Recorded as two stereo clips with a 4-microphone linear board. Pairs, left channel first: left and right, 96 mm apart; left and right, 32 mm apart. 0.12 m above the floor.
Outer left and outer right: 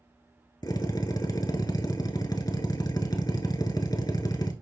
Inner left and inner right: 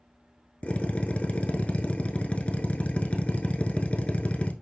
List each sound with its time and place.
0.6 s a drill: 45° left (ahead or behind), 0.8 m